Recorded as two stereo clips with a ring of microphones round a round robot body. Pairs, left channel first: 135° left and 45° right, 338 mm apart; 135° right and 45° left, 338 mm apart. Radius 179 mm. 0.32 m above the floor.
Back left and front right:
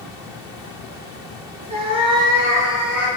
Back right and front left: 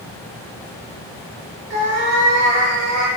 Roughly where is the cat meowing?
Ahead left.